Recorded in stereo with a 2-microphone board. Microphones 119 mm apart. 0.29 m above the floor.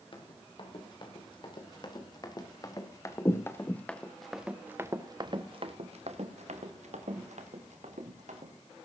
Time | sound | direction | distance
0.1 | running footsteps | 45° left (ahead or behind) | 4.5 m